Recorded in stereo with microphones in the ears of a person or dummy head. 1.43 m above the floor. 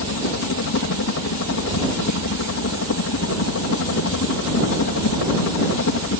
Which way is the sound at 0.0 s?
60° left (ahead or behind).